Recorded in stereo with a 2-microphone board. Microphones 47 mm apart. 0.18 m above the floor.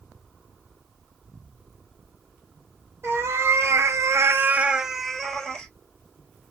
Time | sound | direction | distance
3.0 | a cat meowing | 55° right (ahead or behind) | 1.3 m